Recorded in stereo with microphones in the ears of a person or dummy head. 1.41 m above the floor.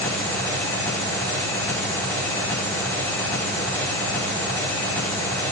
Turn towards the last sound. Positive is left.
turn(degrees=15)  # may be behind; listen again after turning